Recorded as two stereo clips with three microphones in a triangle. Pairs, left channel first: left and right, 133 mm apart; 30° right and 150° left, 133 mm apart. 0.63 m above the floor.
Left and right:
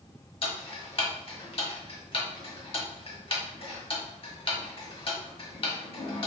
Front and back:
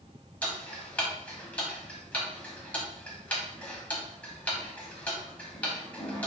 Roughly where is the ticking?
Ahead left.